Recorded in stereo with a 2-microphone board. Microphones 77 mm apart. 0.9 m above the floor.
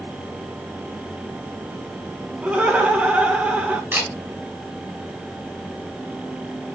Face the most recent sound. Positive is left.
turn(degrees=-25)  # may be behind; listen again after turning